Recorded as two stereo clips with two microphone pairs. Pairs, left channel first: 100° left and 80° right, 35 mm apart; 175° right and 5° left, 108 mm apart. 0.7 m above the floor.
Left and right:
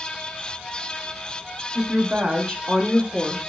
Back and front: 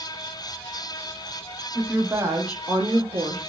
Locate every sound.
1.8 s a woman speaking: 70° right, 0.8 m; by 3.4 s 10° right, 1.1 m